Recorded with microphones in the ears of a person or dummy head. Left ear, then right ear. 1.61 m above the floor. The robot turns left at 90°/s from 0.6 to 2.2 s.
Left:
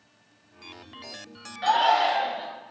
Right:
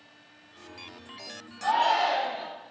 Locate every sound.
1.6 s a shout: 50° left, 1.9 m; by 2.5 s straight ahead, 1.9 m